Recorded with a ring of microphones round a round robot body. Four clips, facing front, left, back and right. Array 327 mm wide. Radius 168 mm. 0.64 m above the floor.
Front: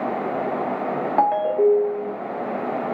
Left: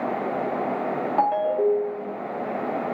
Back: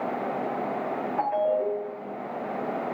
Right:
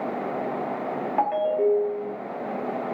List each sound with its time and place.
1.2 s a ringtone: 10° left, 0.6 m